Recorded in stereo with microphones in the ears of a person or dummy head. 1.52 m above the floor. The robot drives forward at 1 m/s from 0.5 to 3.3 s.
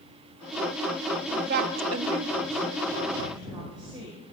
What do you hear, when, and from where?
1.3 s a woman speaking: 35° right (ahead or behind), 0.8 m; by 4.2 s 20° right (ahead or behind), 1.5 m